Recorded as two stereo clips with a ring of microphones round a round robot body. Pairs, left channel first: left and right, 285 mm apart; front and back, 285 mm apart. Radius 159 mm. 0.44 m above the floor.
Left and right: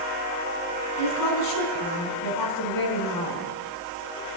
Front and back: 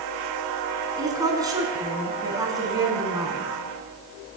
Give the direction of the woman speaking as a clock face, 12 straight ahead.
9 o'clock.